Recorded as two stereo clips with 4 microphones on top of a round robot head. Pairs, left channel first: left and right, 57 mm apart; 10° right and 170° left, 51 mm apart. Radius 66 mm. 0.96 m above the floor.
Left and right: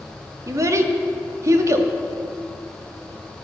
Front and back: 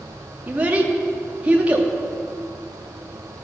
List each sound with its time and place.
0.5 s a child speaking: 120° right, 1.4 m